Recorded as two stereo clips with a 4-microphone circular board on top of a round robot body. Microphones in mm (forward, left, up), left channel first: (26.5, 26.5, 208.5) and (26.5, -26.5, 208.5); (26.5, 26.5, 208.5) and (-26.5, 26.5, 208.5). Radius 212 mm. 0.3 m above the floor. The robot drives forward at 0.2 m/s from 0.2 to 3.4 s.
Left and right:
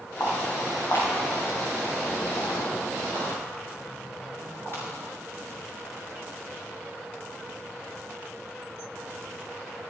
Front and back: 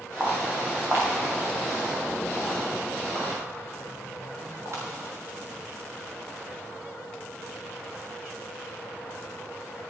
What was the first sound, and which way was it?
Footsteps, 125° left.